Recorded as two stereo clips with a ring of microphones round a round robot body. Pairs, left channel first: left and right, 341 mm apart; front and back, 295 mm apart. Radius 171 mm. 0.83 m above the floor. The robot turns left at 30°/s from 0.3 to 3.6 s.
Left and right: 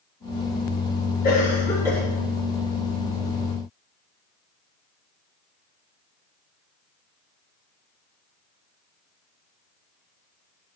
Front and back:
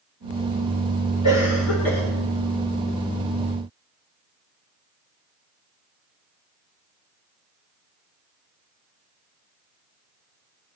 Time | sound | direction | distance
1.2 | a cough | 25° left | 3.5 m